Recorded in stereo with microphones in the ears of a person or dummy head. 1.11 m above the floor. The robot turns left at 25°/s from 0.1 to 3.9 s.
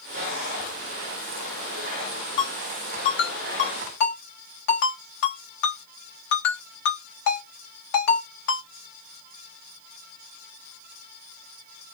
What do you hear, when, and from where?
2.4 s a ringtone: 30° left (ahead or behind), 1.9 m; by 8.7 s 65° left (ahead or behind), 1.9 m